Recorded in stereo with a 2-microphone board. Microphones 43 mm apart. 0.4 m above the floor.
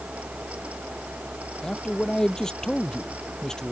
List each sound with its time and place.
1.6 s a man speaking: 15° left (ahead or behind)